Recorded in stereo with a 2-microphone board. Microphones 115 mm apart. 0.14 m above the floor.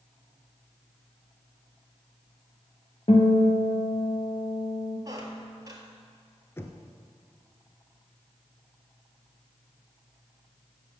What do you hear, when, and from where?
3.1 s a guitar: 60° left (ahead or behind), 2.5 m
5.0 s a squeak: 30° right (ahead or behind), 1.7 m
6.6 s knocking: 20° left (ahead or behind), 1.3 m